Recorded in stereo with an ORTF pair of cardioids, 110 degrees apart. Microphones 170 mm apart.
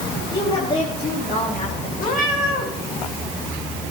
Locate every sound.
0.3 s a woman speaking: 30° left, 4 m; by 1.9 s 40° left, 5 m
2.0 s a cat meowing: 65° left, 4 m